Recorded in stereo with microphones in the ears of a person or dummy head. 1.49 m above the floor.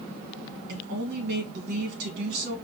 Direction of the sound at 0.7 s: 65° right (ahead or behind).